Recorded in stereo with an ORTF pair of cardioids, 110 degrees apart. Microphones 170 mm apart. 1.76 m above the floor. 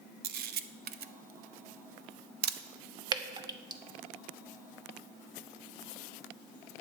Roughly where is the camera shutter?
Ahead right.